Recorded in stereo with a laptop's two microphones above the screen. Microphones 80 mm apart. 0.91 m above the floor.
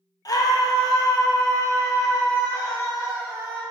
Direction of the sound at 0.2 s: 50° left (ahead or behind).